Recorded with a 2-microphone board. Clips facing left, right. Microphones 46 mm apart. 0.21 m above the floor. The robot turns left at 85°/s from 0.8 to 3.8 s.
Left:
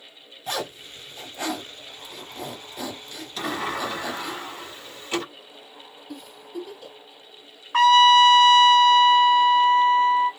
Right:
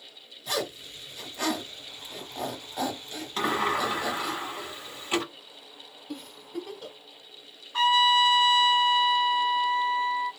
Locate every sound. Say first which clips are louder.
0.5 s a zipper: left 1 dB; 50° left (ahead or behind), 2 m; by 4.4 s centre (ahead or behind), 2 m
3.4 s a sliding door: right 2 dB; 120° right, 1.3 m; by 5.2 s 160° right, 1.3 m
6.1 s a giggle: even; 55° right (ahead or behind), 0.8 m
7.7 s a trumpet: left 7 dB; 70° left (ahead or behind), 0.6 m